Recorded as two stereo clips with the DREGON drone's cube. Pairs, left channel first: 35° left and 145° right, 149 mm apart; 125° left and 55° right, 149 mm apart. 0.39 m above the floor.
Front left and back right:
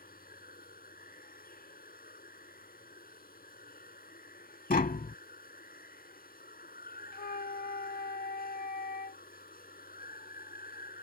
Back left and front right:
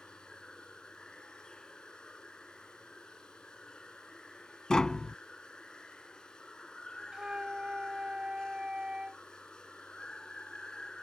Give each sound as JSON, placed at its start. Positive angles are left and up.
{"t": 0.0, "sound": "running water", "azimuth_deg": 40}
{"t": 4.7, "sound": "tapping", "azimuth_deg": 40}
{"t": 7.1, "sound": "a flute", "azimuth_deg": 30}